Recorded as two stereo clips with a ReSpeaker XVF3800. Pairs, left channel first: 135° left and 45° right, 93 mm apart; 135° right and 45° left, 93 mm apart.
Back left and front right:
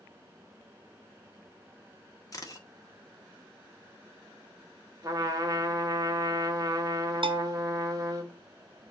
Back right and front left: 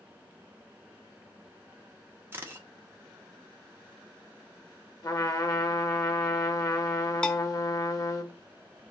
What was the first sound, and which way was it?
A camera shutter, 100° left.